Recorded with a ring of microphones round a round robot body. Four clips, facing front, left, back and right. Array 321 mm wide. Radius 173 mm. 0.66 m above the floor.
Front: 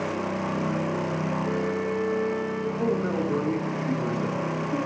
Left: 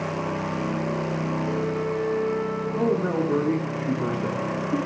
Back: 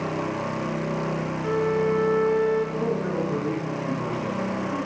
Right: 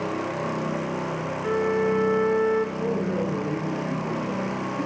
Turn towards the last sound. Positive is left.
turn(degrees=75)